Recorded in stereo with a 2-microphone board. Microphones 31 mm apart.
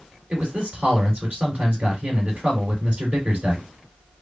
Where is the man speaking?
45° right (ahead or behind), 3 m.